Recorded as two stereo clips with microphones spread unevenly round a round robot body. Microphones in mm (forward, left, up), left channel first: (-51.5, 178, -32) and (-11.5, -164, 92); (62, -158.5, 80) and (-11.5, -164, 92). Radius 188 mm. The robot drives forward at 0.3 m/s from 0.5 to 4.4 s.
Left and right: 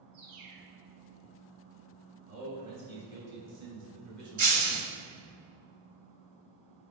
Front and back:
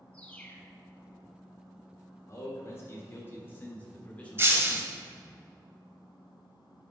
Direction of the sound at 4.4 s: 120° right.